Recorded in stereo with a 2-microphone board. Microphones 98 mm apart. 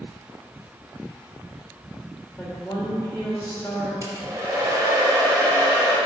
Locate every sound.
2.4 s a woman speaking: 25° left (ahead or behind), 2 m
4.0 s a hair dryer: 30° right (ahead or behind), 1.4 m